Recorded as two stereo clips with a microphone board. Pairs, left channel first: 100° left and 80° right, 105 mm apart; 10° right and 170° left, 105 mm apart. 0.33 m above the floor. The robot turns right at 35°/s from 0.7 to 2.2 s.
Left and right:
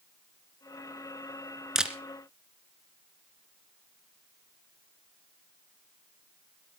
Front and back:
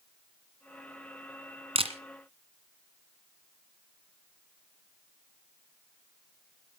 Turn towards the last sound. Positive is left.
turn(degrees=-150)